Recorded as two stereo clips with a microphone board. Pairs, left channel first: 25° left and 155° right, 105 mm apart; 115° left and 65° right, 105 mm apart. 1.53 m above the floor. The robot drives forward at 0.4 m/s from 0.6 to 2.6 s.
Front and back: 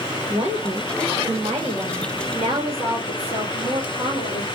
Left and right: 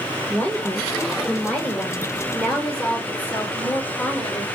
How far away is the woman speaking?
About 1.5 m.